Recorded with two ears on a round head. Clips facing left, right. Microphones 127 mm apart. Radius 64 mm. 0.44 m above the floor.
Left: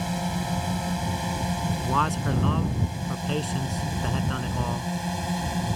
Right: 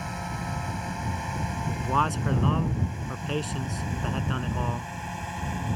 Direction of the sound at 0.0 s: 35° left (ahead or behind).